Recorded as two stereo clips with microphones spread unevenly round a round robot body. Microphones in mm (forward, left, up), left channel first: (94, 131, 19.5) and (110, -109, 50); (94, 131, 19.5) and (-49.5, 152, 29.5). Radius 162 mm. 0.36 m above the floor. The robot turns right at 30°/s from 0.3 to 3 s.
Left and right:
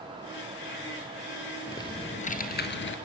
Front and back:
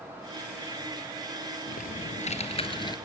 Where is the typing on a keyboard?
15° left, 1.8 m; by 3.0 s 55° left, 1.8 m.